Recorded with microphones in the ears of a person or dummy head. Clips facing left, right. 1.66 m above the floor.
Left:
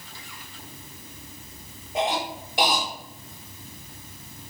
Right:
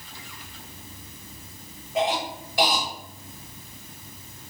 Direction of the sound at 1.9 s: 20° left (ahead or behind).